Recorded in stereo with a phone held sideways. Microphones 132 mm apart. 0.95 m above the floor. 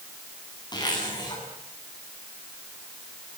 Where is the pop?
I don't hear a pop.